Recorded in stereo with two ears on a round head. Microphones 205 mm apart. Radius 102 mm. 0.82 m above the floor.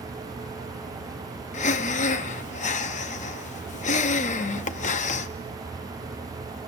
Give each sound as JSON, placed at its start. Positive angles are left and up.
{"t": 1.5, "sound": "breathing", "side_deg": 30, "distance_m": 0.6}